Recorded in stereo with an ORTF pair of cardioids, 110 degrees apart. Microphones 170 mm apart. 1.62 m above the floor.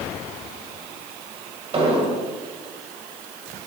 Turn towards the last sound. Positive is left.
turn(degrees=-35)